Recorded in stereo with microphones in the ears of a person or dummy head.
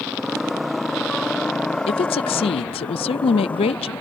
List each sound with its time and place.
0.0 s a motorcycle: centre (ahead or behind); by 4.0 s 10° left (ahead or behind)
1.9 s a woman speaking: 25° left (ahead or behind)